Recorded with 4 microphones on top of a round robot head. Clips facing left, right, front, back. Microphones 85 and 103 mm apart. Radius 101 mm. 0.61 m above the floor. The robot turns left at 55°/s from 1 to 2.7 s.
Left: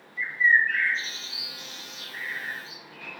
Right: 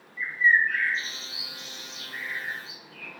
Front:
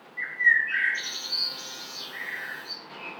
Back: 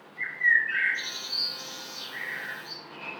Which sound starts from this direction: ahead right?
A bird, at 0.2 s.